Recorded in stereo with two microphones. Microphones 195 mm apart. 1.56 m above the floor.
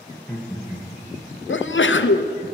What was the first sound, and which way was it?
Laughter, 10° left (ahead or behind).